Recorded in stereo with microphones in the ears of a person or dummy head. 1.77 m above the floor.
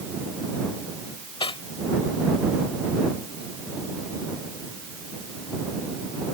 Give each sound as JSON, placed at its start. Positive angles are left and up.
{"t": 1.4, "sound": "cutlery clinking", "side_deg": 30}